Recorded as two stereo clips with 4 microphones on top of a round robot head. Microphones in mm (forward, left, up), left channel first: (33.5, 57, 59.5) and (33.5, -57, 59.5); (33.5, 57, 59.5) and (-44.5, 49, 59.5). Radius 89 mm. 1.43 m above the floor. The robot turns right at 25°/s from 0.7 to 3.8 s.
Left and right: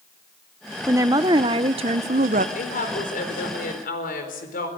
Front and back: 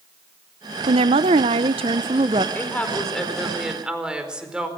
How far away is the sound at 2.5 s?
About 4.5 m.